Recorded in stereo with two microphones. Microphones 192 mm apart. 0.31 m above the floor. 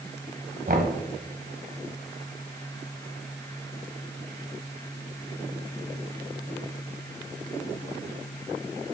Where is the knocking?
50° right (ahead or behind), 1.8 m.